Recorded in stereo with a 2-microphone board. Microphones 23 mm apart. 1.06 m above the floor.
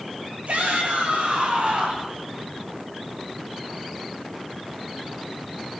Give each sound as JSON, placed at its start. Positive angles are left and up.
{"t": 0.5, "sound": "a shout", "side_deg": -70, "distance_m": 9.0}